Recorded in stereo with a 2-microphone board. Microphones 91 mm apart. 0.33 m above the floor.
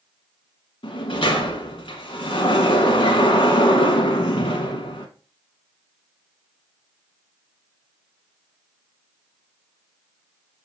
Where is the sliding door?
70° left (ahead or behind), 1.0 m.